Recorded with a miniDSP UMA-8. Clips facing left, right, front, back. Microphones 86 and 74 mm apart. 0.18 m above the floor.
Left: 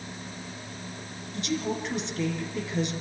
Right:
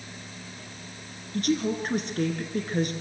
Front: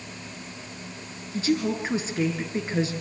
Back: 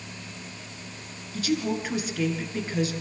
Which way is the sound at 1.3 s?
60° right.